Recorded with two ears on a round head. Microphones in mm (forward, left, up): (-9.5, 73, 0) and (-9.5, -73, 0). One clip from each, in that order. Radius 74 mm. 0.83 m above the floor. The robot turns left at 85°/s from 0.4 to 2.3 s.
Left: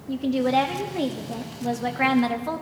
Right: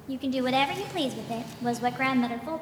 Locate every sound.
0.1 s a woman speaking: 30° right, 0.9 m; by 2.6 s 165° left, 0.9 m